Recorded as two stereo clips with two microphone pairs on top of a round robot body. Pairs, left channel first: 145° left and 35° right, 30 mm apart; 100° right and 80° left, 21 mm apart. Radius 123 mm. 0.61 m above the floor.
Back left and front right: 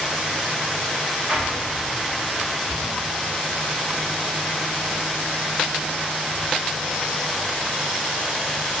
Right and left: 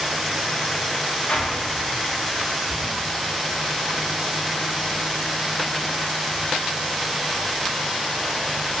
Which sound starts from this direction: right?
An explosion, at 1.3 s.